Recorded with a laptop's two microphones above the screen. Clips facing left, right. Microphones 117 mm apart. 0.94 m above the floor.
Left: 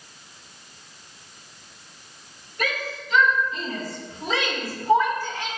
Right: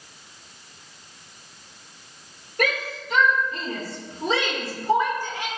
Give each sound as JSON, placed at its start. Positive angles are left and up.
{"t": 2.6, "sound": "a shout", "side_deg": -55, "distance_m": 3.5}